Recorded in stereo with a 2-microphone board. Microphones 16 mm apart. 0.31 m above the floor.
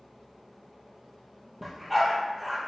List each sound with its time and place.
1.6 s a dog barking: 5° left (ahead or behind), 3 m